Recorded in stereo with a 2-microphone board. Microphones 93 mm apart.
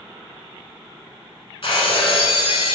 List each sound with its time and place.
1.6 s breaking glass: 65° left (ahead or behind), 0.9 m